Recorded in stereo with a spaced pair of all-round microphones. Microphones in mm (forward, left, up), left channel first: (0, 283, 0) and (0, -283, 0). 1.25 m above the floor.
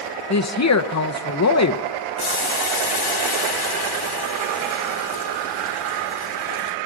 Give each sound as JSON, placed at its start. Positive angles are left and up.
{"t": 0.3, "sound": "a woman speaking", "side_deg": 30, "distance_m": 0.6}
{"t": 2.2, "sound": "boiling", "side_deg": 40, "distance_m": 0.8}